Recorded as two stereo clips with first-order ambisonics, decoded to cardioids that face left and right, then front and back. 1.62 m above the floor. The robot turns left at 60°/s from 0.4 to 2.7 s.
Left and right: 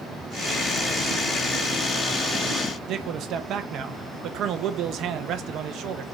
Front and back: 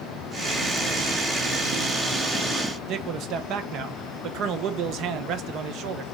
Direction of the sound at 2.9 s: 135° right.